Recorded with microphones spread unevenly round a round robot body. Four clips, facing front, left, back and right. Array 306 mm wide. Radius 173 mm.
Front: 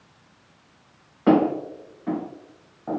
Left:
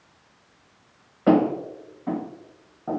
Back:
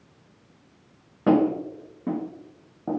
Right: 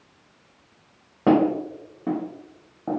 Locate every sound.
1.3 s footsteps: 125° right, 1.4 m; by 3.0 s 160° right, 0.6 m